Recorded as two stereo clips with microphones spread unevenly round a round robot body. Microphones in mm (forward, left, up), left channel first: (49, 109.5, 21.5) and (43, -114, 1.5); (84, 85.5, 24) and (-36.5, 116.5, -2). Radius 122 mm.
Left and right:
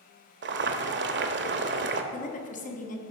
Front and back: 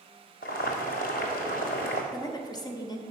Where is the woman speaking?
45° left, 1.2 m.